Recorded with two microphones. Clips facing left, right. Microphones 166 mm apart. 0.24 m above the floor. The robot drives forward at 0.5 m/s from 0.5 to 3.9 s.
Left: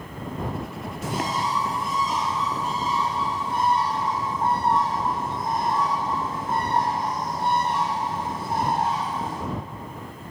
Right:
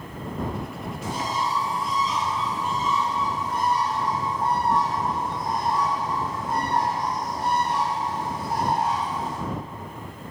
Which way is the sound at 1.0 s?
85° left.